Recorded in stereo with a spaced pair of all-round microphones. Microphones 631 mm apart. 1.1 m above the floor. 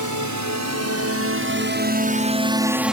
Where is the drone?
30° right (ahead or behind); by 3.0 s centre (ahead or behind).